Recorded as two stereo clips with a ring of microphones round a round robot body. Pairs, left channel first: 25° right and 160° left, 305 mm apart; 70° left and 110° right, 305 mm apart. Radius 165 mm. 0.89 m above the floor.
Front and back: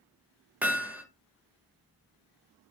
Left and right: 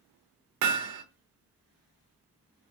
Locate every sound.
0.6 s hammering: 120° right, 0.7 m